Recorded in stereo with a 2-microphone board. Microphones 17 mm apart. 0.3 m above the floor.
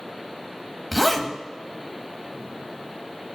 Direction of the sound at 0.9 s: 5° right (ahead or behind).